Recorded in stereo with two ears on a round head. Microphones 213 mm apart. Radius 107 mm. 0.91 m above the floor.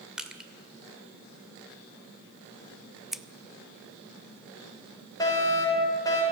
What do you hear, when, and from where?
0.2 s crushing: 5° right (ahead or behind), 1.9 m
3.1 s scissors: centre (ahead or behind), 0.7 m
5.2 s a fire alarm: 15° left (ahead or behind), 6.5 m